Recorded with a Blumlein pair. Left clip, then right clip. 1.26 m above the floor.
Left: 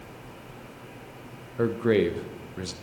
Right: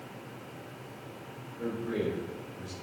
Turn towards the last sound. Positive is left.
turn(degrees=40)